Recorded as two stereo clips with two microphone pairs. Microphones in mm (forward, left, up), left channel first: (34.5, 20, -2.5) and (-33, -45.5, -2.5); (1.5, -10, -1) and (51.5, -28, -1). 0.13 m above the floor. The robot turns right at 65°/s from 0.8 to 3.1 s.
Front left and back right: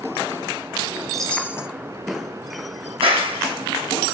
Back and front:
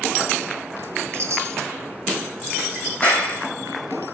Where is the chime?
45° right, 1.3 m; by 1.7 s 10° right, 1.3 m.